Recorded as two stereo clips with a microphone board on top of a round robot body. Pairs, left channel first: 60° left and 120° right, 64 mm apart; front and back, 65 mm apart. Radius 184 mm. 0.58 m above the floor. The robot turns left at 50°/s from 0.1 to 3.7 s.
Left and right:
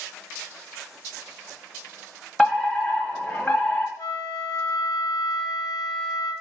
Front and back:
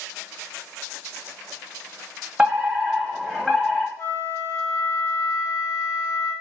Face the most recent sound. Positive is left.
turn(degrees=45)